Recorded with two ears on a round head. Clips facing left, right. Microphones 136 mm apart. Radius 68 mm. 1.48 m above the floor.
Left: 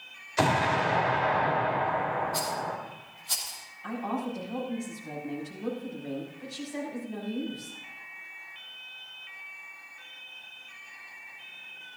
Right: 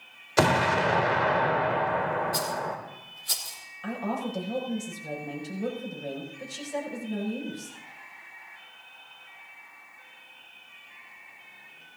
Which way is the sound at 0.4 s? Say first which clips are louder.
Right 2 dB; 70° right (ahead or behind).